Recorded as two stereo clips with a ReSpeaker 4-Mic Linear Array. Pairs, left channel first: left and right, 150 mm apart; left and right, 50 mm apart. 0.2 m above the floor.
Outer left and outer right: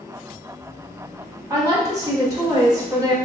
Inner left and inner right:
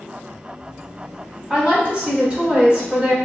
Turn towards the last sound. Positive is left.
turn(degrees=-25)  # may be behind; listen again after turning